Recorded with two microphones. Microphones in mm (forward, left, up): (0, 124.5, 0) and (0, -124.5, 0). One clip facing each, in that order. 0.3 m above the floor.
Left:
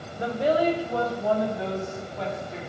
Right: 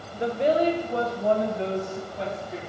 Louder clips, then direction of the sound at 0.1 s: Right 1 dB; 20° right (ahead or behind).